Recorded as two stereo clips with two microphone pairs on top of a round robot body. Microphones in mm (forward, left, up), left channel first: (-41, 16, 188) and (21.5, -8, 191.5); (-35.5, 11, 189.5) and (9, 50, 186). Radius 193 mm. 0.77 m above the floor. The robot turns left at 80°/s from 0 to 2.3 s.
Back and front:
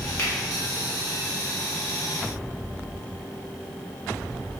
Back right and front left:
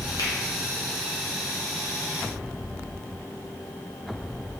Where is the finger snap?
145° right, 1.5 m; by 0.3 s 160° right, 1.5 m.